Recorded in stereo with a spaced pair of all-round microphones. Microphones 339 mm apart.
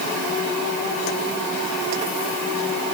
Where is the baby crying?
No baby crying in this recording.